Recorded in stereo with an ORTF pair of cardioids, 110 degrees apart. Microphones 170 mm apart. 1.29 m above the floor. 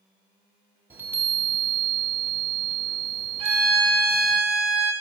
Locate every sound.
0.9 s a chime: 15° right, 1.9 m
3.4 s a violin: 35° right, 5 m